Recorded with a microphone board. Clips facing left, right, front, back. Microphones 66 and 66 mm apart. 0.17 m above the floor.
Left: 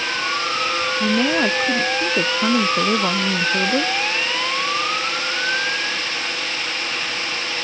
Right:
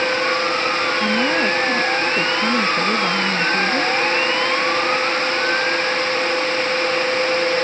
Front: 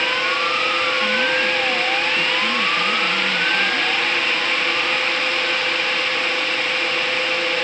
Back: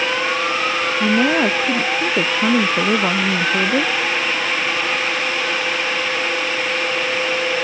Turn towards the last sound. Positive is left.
turn(degrees=160)